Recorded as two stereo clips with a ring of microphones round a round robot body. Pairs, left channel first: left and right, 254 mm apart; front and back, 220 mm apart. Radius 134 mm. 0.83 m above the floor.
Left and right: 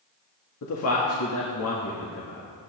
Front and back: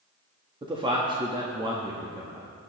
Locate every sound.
0.6 s a man speaking: 115° left, 1.4 m